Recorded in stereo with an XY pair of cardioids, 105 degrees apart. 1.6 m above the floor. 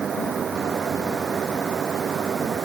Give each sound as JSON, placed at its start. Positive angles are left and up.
{"t": 0.0, "sound": "a fan", "azimuth_deg": -40}